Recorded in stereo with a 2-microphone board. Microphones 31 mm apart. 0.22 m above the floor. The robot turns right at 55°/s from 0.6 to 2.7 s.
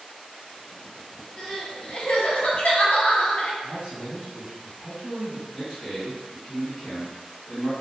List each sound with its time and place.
1.4 s crying: 20° left, 0.7 m; by 3.5 s 95° left, 0.7 m
3.6 s a man speaking: centre (ahead or behind), 1.4 m
5.5 s a man speaking: 20° left (ahead or behind), 1.9 m